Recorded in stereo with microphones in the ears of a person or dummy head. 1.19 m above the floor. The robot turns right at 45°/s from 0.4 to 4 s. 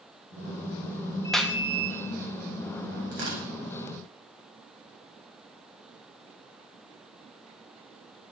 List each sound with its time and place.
1.3 s a clap: centre (ahead or behind), 1.0 m; by 1.6 s 10° right (ahead or behind), 1.0 m
3.1 s tearing paper: 65° right (ahead or behind), 8.5 m; by 3.4 s 80° right, 8.5 m